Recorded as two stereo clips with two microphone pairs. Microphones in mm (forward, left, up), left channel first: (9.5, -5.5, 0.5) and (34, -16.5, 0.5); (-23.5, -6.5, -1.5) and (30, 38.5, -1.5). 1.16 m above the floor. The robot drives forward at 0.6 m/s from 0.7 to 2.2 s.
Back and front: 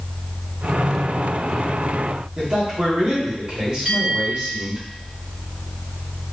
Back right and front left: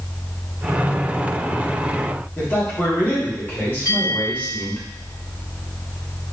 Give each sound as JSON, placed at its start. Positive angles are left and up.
{"t": 2.4, "sound": "a man speaking", "azimuth_deg": -80, "distance_m": 1.9}
{"t": 3.9, "sound": "a bell", "azimuth_deg": -105, "distance_m": 2.0}